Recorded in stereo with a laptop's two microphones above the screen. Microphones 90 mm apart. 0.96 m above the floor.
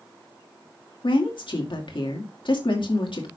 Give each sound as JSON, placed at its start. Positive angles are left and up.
{"t": 1.0, "sound": "a woman speaking", "side_deg": 65, "distance_m": 2.0}